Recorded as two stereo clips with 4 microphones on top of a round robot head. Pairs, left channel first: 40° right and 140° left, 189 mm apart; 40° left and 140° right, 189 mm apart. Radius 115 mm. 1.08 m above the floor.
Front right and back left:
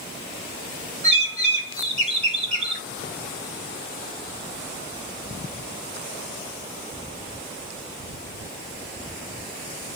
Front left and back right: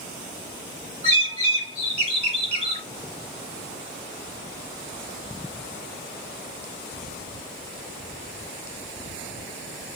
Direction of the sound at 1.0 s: 175° left.